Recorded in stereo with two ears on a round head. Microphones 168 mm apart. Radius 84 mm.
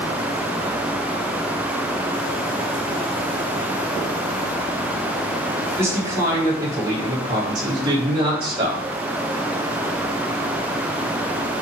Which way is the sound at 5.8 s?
15° right (ahead or behind).